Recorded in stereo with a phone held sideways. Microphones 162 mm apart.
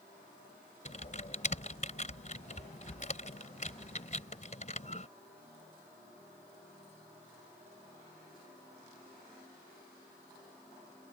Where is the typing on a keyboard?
50° left (ahead or behind).